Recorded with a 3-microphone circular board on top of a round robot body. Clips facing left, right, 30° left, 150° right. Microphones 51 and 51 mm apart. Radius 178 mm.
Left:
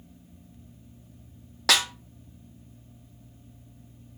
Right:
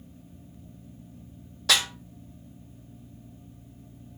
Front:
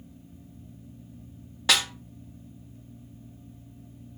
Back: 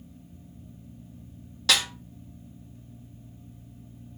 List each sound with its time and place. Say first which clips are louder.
1.7 s a snare drum: left 1 dB, even; 100° left, 0.5 m